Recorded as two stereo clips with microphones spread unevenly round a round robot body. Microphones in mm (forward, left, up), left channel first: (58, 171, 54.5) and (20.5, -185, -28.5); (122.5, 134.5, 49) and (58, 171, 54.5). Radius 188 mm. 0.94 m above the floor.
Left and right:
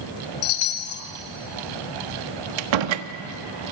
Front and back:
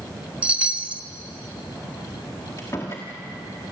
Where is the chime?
80° left, 1.8 m.